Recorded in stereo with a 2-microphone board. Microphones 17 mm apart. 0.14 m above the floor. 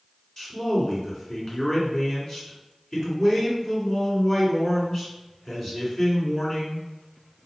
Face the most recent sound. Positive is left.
turn(degrees=30)  # may be behind; listen again after turning